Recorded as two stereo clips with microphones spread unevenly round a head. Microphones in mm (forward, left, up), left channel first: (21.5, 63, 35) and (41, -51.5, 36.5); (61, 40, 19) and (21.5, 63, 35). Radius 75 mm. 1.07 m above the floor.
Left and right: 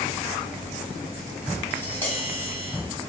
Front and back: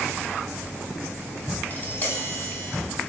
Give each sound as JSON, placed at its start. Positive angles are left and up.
{"t": 1.7, "sound": "tapping", "azimuth_deg": 25, "distance_m": 3.0}